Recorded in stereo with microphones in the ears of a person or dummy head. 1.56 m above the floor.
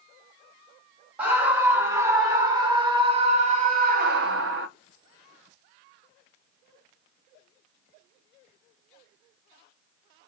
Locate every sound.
1.2 s a scream: 5° right (ahead or behind), 2.5 m; by 4.7 s 65° right (ahead or behind), 0.8 m